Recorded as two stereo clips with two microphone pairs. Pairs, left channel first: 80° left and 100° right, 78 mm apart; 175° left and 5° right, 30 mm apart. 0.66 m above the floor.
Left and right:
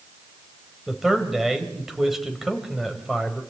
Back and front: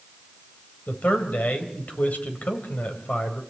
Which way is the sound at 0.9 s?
170° left.